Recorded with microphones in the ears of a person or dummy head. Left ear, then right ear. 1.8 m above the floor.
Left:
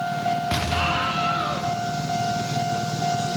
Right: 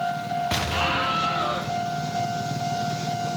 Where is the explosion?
10° right (ahead or behind), 0.5 m.